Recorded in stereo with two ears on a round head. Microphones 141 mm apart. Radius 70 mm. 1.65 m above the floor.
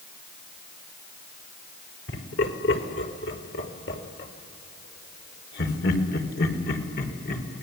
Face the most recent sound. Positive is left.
turn(degrees=60)  # may be behind; listen again after turning